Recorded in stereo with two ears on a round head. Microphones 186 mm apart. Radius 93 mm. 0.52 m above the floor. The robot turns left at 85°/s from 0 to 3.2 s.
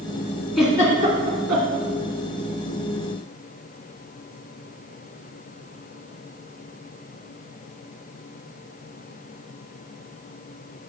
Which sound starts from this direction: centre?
A giggle, at 0.6 s.